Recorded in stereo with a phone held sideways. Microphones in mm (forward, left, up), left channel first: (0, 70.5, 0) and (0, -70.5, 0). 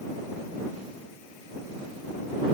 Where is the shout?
No shout in this recording.